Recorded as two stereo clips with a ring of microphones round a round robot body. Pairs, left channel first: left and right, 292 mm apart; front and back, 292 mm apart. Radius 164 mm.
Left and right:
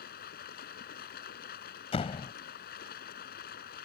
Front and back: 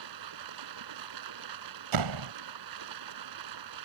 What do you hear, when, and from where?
0.0 s running water: 155° left
1.9 s a door slam: 165° left